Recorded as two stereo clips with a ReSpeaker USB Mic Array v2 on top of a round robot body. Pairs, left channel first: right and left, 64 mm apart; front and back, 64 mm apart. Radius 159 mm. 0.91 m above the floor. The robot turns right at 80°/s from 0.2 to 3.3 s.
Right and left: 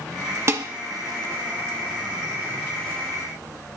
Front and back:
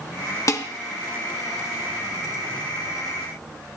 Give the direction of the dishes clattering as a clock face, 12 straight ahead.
11 o'clock.